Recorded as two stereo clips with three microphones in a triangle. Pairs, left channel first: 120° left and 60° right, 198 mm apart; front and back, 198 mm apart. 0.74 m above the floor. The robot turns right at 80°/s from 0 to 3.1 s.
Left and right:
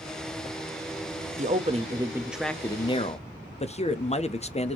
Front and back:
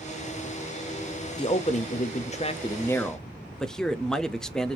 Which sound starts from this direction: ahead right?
A man speaking, at 1.4 s.